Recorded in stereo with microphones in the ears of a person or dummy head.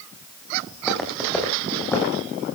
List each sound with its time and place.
0.7 s footsteps: 10° right (ahead or behind), 6 m; by 2.1 s 10° left (ahead or behind), 5 m